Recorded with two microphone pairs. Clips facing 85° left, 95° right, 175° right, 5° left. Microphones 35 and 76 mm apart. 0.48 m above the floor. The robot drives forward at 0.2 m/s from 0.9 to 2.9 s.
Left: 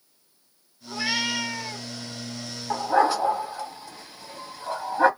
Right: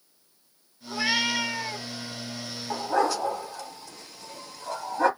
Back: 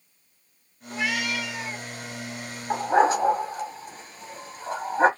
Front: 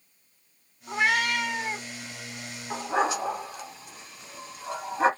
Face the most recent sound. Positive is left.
turn(degrees=140)